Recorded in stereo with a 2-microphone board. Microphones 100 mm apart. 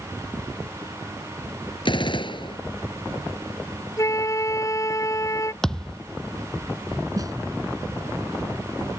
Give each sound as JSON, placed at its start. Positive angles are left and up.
{"t": 1.9, "sound": "a gunshot", "side_deg": 55}
{"t": 4.0, "sound": "a flute", "side_deg": 30}
{"t": 5.6, "sound": "a thud", "side_deg": 5}
{"t": 7.2, "sound": "a snare drum", "side_deg": -40}